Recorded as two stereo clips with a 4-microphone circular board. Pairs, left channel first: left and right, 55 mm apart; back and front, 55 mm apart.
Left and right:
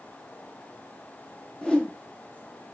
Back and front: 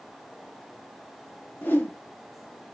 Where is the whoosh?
155° left, 1.2 m.